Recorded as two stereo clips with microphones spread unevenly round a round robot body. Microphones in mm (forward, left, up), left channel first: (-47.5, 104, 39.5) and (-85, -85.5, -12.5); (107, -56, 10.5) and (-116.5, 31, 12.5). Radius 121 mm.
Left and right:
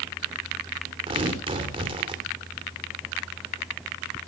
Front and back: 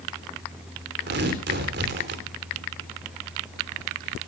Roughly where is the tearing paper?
Behind.